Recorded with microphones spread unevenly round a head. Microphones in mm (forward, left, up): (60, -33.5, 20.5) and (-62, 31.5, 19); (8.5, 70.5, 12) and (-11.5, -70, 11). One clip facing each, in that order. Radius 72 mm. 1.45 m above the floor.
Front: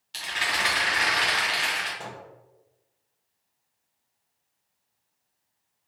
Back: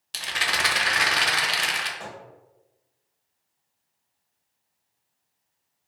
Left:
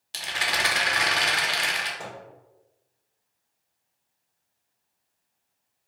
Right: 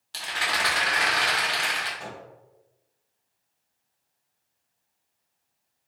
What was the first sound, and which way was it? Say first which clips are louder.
A rattle: back 1 dB, even; 150° left.